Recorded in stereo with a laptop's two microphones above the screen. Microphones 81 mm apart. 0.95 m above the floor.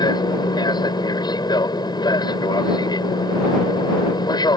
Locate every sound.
0.0 s an aircraft: 60° left (ahead or behind)